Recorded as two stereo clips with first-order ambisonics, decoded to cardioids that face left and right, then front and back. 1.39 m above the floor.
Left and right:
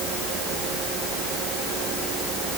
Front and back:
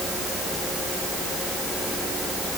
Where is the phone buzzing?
No phone buzzing in this recording.